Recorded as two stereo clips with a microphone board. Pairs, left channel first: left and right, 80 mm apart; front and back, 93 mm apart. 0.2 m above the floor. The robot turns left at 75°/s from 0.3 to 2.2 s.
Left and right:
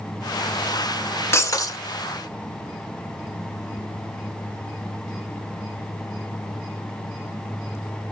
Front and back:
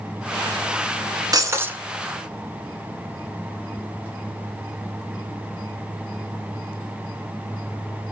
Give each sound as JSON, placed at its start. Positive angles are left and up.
{"t": 1.3, "sound": "breaking glass", "azimuth_deg": 140, "distance_m": 0.9}